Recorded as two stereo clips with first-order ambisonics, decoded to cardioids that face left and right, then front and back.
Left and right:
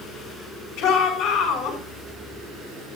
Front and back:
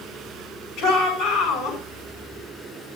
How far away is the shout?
About 9 m.